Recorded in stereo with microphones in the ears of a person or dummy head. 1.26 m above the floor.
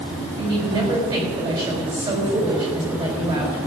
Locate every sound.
0.4 s a woman speaking: 25° right (ahead or behind), 4 m